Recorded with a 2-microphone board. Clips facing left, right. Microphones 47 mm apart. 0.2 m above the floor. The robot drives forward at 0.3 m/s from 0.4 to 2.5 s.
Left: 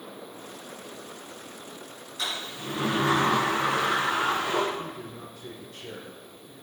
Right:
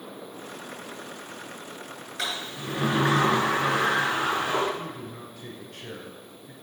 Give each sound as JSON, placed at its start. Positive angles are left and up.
{"t": 2.2, "sound": "a sliding door", "side_deg": -65, "distance_m": 3.0}
{"t": 4.8, "sound": "a man speaking", "side_deg": -65, "distance_m": 2.5}